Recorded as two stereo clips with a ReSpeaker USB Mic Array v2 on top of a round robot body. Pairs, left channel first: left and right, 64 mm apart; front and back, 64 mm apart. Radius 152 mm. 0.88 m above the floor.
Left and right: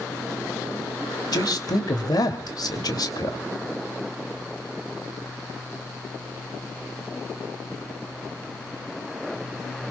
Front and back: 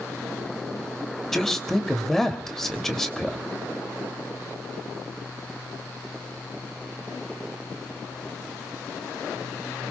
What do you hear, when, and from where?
1.3 s a man speaking: 85° left, 3 m